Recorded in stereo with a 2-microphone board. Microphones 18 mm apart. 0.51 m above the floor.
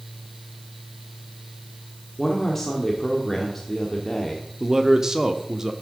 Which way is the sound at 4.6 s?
25° right (ahead or behind).